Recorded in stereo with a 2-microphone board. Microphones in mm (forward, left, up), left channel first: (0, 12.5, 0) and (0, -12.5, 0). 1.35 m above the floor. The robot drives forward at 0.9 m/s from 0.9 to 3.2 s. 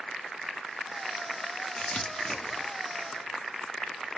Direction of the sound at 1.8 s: 45° left (ahead or behind).